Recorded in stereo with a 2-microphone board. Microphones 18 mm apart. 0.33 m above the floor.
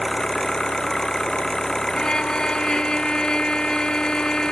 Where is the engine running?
35° left (ahead or behind).